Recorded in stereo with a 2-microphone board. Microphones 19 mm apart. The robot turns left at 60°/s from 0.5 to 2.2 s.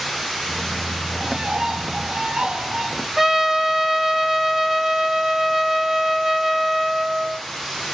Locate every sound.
1.1 s a bird: 40° right, 0.9 m; by 3.1 s 105° right, 0.9 m
3.2 s a trumpet: 20° right (ahead or behind), 1.0 m